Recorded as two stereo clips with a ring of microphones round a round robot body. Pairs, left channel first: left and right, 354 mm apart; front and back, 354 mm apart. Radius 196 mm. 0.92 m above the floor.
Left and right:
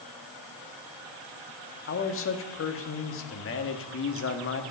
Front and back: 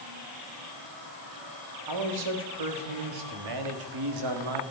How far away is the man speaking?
About 1.4 m.